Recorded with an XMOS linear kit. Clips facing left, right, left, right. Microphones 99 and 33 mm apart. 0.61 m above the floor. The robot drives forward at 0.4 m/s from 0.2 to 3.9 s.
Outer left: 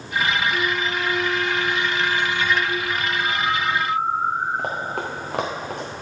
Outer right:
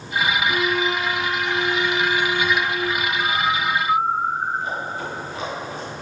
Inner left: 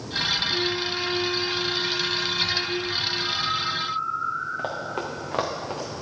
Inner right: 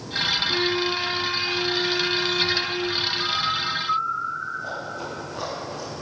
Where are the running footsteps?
75° left (ahead or behind), 3 m; by 5.9 s 65° left (ahead or behind), 3.5 m.